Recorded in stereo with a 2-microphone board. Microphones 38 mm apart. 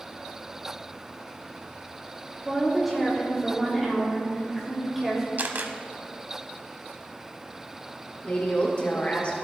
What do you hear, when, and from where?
2.5 s a woman speaking: 5° right (ahead or behind), 1.5 m
5.4 s a camera shutter: 50° right (ahead or behind), 0.7 m
8.2 s a woman speaking: 40° left (ahead or behind), 1.1 m